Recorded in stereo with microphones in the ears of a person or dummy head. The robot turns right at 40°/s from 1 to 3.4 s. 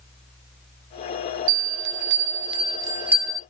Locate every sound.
1.5 s a bell: 75° right (ahead or behind), 0.7 m; by 3.4 s centre (ahead or behind), 0.7 m